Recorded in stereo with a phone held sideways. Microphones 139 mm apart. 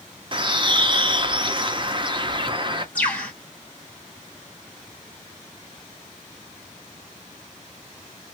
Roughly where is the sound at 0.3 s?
Right.